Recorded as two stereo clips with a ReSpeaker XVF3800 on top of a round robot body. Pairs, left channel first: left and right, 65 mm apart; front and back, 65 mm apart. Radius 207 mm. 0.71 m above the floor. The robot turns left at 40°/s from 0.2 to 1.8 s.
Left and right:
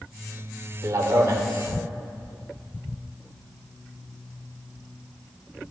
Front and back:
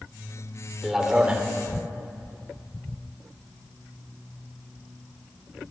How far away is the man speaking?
About 1.9 m.